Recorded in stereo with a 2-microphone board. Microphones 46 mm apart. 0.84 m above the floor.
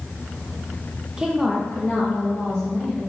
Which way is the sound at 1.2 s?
15° right (ahead or behind).